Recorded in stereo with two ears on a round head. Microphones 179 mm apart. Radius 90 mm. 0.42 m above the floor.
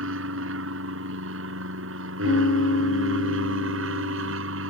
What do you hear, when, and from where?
0.0 s an aircraft: 70° right (ahead or behind)
2.2 s a piano: 65° left (ahead or behind)